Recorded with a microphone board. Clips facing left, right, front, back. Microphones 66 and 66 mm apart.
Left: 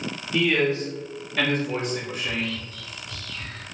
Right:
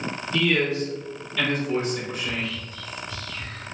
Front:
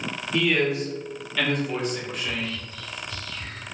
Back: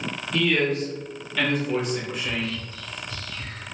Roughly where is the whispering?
Behind.